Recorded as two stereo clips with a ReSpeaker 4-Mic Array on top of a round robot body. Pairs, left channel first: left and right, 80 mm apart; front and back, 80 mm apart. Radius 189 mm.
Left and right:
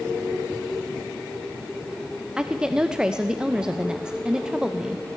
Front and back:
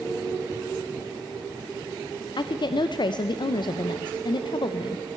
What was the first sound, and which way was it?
A woman speaking, 10° right.